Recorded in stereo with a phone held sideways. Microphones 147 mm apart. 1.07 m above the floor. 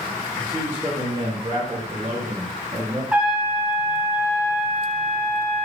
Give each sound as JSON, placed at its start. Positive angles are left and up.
{"t": 0.3, "sound": "a man speaking", "side_deg": 0, "distance_m": 1.1}
{"t": 3.1, "sound": "a trumpet", "side_deg": -10, "distance_m": 0.5}